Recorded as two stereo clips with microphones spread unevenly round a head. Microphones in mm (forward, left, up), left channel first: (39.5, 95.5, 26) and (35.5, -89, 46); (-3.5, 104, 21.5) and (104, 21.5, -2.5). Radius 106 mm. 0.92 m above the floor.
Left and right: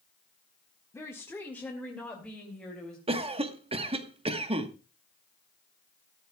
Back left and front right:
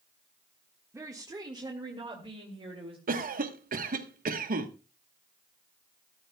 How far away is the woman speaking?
About 1.4 m.